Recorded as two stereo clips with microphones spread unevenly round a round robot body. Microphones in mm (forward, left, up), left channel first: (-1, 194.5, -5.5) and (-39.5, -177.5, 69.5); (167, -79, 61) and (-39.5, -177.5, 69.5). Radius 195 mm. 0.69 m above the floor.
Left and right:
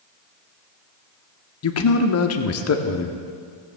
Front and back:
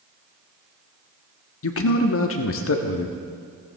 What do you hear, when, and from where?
1.6 s a man speaking: 40° left, 1.1 m